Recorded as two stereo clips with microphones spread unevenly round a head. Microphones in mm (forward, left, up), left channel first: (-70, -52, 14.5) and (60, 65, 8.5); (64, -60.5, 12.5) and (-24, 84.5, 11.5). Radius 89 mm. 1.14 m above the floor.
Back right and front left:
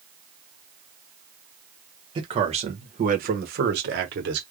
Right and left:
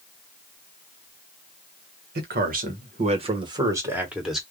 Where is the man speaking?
105° left, 1.4 m; by 4.4 s 30° left, 1.3 m.